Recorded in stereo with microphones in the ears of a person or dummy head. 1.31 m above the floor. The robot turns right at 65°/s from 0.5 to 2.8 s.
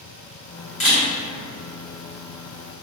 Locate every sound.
0.8 s a camera shutter: 40° left (ahead or behind), 1.5 m; by 1.0 s 25° left (ahead or behind), 1.5 m